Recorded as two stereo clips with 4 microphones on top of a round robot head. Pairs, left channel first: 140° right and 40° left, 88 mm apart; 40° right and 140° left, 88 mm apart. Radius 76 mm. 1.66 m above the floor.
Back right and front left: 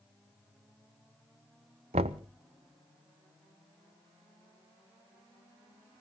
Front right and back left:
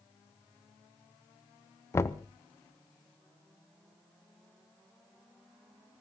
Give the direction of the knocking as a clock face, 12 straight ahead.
11 o'clock.